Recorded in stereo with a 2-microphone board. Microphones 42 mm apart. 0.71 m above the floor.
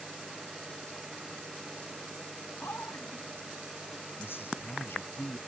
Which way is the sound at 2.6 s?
65° left (ahead or behind).